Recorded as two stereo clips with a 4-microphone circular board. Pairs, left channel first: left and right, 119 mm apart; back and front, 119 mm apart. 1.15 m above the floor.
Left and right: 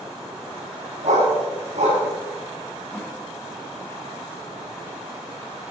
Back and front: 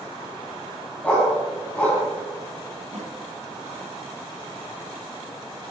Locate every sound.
1.0 s a dog barking: 105° right, 4.5 m
2.9 s a snare drum: 15° left, 3 m